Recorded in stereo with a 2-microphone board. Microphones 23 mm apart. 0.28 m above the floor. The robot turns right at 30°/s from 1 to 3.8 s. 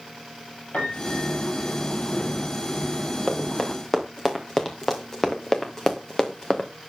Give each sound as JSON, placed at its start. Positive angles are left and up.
{"t": 0.7, "sound": "a piano", "side_deg": 85, "distance_m": 5.5}
{"t": 3.3, "sound": "running footsteps", "side_deg": 35, "distance_m": 4.0}